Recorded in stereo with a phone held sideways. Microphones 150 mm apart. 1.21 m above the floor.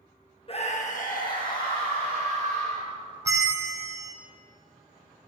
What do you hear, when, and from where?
0.5 s a scream: 40° left (ahead or behind), 0.8 m; by 2.9 s 80° left, 4 m
3.2 s a bell: 20° right (ahead or behind), 0.7 m